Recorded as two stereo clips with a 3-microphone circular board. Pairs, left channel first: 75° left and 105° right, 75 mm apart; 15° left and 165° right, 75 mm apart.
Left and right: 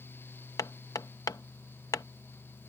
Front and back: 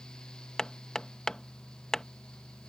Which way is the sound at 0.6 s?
95° left.